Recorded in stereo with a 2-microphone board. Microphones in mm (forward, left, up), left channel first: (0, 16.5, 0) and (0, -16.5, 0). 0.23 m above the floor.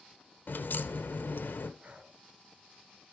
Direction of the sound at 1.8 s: 50° right (ahead or behind).